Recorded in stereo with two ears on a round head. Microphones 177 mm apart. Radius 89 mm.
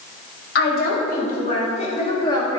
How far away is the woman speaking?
About 3 m.